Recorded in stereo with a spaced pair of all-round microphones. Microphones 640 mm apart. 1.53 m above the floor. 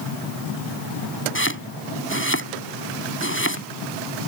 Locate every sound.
1.4 s chopping: 20° left (ahead or behind)